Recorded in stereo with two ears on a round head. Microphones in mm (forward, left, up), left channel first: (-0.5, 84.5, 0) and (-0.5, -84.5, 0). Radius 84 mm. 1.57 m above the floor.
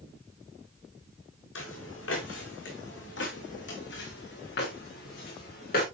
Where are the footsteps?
75° left (ahead or behind), 5.5 m; by 5.8 s 50° left (ahead or behind), 6 m.